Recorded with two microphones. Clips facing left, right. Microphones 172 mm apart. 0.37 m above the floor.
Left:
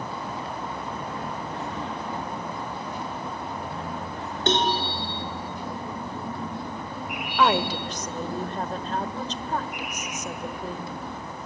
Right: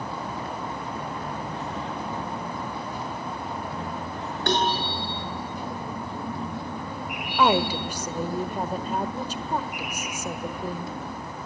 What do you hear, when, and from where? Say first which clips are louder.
4.5 s a cowbell: left 1 dB; 25° left (ahead or behind), 5 m
7.4 s a woman speaking: right 1 dB; 10° right (ahead or behind), 1.3 m